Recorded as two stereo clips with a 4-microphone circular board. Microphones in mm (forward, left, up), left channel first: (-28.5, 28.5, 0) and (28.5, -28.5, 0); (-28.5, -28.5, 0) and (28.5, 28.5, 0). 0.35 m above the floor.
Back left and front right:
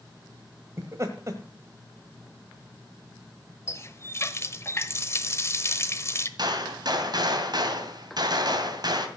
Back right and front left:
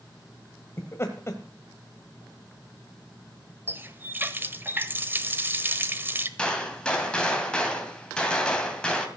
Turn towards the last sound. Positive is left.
turn(degrees=-55)